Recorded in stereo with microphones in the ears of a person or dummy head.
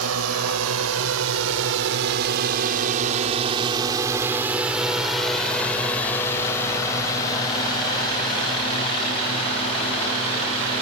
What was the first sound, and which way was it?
A drone, 85° right.